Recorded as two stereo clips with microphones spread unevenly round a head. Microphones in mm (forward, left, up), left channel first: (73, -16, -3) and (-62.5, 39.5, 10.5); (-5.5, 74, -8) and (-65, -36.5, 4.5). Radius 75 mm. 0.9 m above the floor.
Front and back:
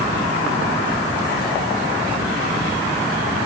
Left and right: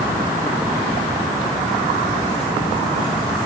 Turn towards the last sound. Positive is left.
No sound to turn to.